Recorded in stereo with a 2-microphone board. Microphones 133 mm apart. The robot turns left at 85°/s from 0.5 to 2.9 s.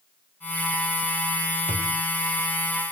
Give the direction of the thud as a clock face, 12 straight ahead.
2 o'clock.